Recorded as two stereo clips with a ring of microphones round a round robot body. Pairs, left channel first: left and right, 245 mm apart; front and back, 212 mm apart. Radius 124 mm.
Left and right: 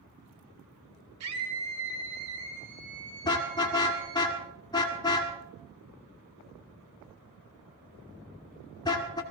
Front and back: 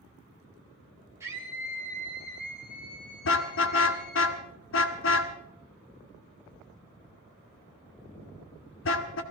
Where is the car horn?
15° left, 2 m.